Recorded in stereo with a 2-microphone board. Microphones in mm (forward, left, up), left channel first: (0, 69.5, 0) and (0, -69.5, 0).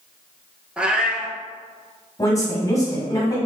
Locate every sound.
0.8 s a cat meowing: 10° right (ahead or behind), 0.5 m
2.2 s a woman speaking: 25° left (ahead or behind), 1.3 m